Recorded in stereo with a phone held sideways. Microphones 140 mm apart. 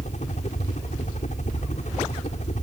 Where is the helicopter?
60° left (ahead or behind).